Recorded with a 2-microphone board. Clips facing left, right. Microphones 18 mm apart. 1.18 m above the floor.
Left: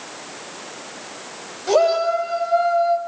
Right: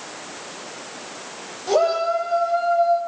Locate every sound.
1.7 s a shout: 15° left (ahead or behind), 6 m; by 3.0 s 25° left (ahead or behind), 6 m